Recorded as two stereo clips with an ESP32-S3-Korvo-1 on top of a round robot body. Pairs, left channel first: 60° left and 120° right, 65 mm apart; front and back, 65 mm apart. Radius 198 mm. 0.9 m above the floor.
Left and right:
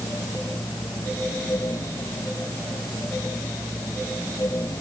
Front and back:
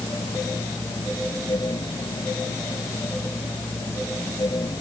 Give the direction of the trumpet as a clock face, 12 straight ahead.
I don't hear a trumpet.